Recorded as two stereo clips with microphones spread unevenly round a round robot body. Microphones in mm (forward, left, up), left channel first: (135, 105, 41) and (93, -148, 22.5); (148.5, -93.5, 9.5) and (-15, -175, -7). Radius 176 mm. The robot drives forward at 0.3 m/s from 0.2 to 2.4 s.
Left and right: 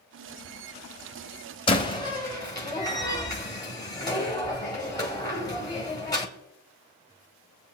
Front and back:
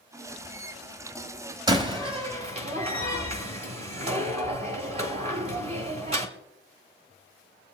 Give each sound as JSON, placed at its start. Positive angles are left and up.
{"t": 1.7, "sound": "a door slam", "azimuth_deg": 150, "distance_m": 0.8}